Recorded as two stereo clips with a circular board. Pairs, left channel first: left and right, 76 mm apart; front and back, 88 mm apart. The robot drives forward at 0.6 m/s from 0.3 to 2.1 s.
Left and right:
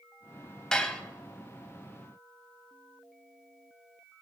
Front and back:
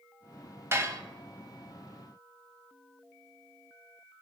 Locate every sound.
0.7 s dishes clattering: 160° left, 0.7 m; by 1.0 s 170° left, 0.8 m